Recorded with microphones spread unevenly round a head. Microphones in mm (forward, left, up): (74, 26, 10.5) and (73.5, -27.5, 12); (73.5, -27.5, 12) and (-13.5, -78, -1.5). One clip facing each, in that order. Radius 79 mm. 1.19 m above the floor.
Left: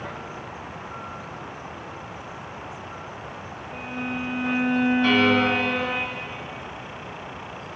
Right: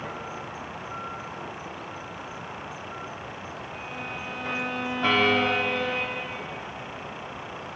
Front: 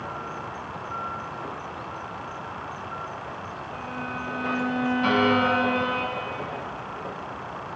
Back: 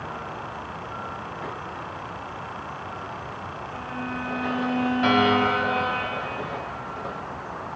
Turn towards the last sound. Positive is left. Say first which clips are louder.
# right 1 dB, back 1 dB
turn(degrees=-140)